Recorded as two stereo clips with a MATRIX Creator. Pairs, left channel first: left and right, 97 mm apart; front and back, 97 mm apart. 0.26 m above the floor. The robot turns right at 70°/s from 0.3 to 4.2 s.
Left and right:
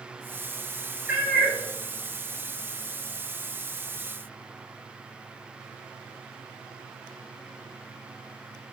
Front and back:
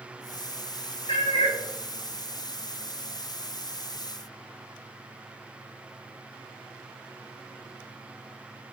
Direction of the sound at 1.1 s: 15° right.